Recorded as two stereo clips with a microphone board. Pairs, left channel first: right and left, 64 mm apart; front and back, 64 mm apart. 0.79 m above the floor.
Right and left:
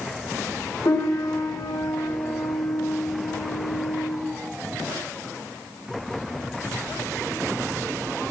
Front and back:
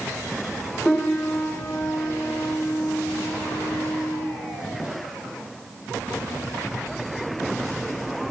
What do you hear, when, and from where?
0.8 s a piano: 90° right, 2 m